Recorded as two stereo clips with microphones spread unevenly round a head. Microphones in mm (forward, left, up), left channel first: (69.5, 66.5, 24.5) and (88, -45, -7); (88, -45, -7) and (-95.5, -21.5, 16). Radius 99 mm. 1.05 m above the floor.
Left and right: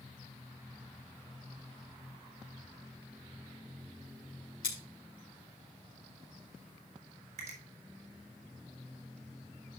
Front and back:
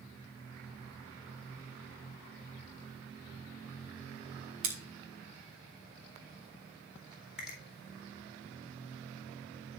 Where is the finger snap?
100° right, 3.5 m.